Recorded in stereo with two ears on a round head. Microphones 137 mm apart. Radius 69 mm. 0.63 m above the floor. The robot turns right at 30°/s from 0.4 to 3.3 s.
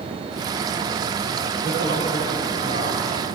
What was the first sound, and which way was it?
A man speaking, 85° left.